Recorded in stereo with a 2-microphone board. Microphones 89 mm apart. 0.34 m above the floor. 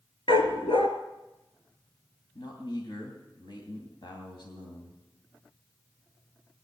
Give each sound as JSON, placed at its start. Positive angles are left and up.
{"t": 0.3, "sound": "a dog barking", "side_deg": 85, "distance_m": 1.6}
{"t": 2.4, "sound": "a man speaking", "side_deg": 60, "distance_m": 2.5}